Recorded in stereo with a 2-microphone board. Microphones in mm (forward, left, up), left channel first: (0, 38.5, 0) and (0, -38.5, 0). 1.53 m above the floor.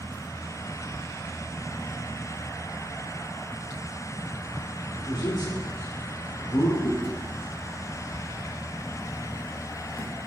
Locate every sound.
5.0 s a man speaking: 70° left (ahead or behind), 3.5 m
6.8 s chewing: 55° left (ahead or behind), 1.4 m